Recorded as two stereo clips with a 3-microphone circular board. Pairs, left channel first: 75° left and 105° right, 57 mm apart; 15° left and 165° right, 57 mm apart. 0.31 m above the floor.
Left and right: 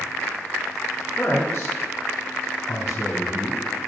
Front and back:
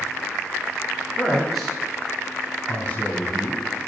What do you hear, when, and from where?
1.2 s a man speaking: 105° left, 3.5 m; by 3.6 s 40° left, 1.6 m